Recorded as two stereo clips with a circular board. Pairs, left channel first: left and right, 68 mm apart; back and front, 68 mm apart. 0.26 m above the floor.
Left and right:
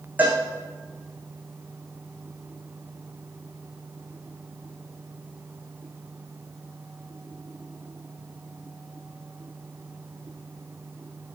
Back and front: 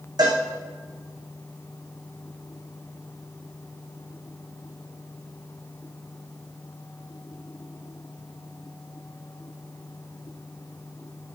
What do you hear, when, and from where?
0.2 s a cowbell: 20° right, 4 m